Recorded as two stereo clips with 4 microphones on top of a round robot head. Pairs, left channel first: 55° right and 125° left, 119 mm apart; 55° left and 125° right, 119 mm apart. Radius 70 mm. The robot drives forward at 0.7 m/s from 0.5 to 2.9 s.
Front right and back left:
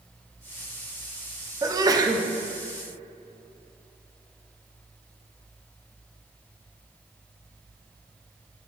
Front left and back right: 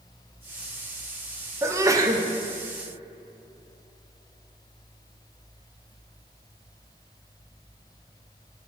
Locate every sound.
1.6 s a sneeze: 175° left, 0.8 m